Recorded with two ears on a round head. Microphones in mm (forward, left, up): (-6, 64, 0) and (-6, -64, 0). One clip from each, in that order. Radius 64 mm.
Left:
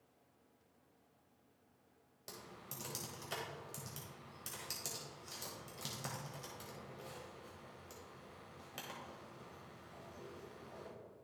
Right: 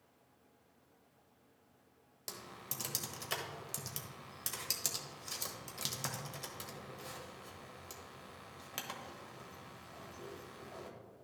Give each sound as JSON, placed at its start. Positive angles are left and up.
{"t": 2.3, "sound": "typing on a keyboard", "side_deg": -30, "distance_m": 1.1}